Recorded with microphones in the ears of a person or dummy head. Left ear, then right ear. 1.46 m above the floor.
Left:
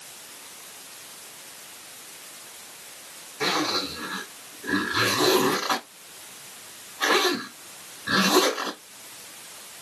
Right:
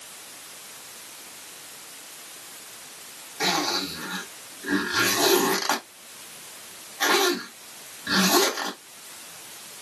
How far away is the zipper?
About 3 m.